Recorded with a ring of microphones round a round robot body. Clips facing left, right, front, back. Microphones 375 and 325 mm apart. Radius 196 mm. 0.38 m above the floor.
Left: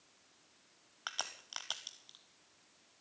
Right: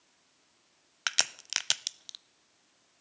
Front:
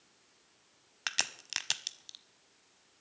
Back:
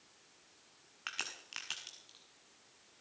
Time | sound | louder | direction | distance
1.1 | a crack | right 6 dB, front 5 dB | 45° right | 0.5 m